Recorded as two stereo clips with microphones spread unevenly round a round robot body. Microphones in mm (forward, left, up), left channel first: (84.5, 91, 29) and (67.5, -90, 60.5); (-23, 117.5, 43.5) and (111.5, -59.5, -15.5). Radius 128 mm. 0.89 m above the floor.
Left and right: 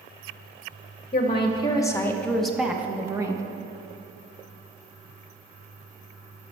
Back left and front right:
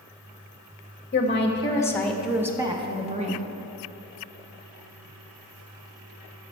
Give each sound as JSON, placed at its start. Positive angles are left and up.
{"t": 1.1, "sound": "a woman speaking", "azimuth_deg": 75, "distance_m": 1.0}